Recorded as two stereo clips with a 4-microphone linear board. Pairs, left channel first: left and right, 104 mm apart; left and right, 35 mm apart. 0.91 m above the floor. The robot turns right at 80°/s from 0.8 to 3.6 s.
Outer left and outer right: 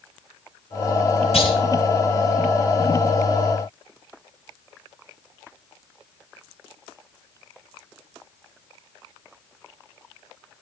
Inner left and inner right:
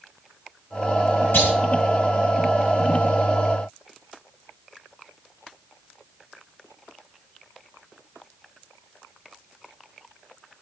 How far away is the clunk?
About 5 m.